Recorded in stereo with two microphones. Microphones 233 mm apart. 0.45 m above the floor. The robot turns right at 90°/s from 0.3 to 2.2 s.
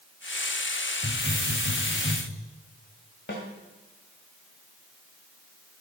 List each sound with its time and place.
1.0 s a hiss: 160° right, 2 m; by 2.2 s 55° right, 2 m
3.3 s a snare drum: 55° left (ahead or behind), 1.8 m